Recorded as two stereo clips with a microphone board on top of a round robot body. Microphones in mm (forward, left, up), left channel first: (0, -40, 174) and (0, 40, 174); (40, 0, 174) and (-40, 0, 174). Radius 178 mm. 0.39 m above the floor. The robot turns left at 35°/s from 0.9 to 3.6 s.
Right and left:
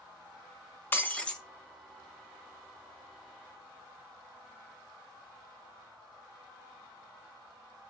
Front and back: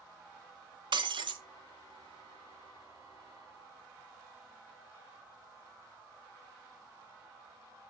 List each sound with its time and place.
0.9 s breaking glass: 155° right, 1.7 m; by 1.4 s 175° right, 1.7 m